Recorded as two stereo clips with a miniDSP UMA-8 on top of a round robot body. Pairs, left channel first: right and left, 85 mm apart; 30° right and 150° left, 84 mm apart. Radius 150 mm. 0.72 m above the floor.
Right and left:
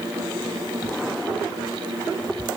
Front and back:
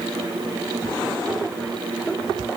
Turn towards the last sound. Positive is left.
No sound to turn to.